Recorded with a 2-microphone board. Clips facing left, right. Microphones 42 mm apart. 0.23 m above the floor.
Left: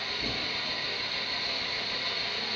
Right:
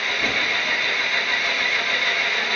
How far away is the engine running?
About 1.0 m.